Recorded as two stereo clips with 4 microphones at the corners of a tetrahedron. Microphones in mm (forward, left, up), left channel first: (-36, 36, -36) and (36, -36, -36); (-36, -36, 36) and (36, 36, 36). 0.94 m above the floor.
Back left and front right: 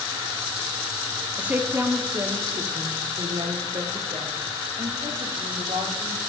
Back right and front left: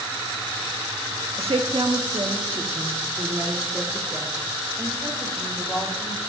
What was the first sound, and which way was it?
A woman speaking, 30° left.